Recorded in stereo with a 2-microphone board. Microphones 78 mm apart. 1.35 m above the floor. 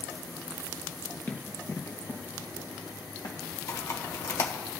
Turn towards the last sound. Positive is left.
turn(degrees=40)  # may be behind; listen again after turning